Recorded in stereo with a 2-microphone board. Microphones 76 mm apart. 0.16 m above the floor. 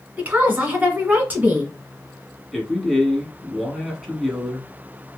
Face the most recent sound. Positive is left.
turn(degrees=0)  # may be behind; listen again after turning